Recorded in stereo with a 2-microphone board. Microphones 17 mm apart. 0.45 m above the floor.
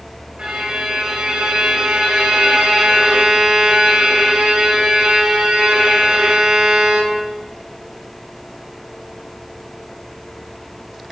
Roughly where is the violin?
Right.